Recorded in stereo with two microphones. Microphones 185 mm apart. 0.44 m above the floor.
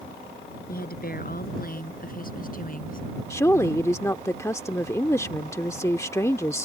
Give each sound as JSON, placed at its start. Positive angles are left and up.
{"t": 0.7, "sound": "a woman speaking", "side_deg": 55}
{"t": 3.3, "sound": "a woman speaking", "side_deg": 15}